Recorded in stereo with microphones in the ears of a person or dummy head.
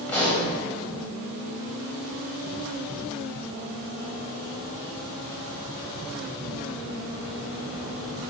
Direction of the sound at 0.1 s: 10° left (ahead or behind).